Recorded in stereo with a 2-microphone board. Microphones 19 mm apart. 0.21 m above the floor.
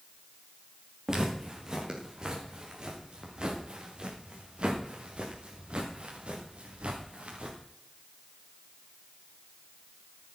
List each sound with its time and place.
1.1 s footsteps: 30° right (ahead or behind), 5 m; by 7.6 s 75° right (ahead or behind), 4.5 m